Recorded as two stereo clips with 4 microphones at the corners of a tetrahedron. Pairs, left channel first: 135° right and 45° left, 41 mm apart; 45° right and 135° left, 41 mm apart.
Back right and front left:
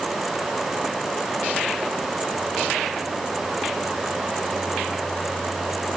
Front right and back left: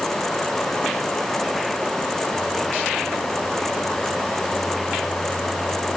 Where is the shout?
No shout in this recording.